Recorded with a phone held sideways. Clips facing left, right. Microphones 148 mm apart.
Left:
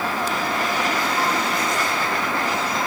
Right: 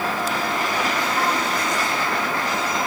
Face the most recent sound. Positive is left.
No sound to turn to.